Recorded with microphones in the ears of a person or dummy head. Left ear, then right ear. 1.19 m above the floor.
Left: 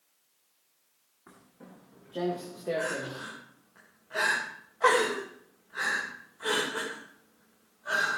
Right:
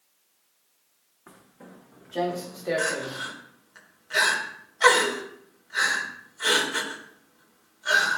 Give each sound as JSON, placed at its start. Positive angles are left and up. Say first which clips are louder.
{"t": 1.3, "sound": "footsteps", "louder": "right 4 dB", "side_deg": -25, "distance_m": 4.5}
{"t": 2.8, "sound": "crying", "louder": "right 5 dB", "side_deg": -85, "distance_m": 3.5}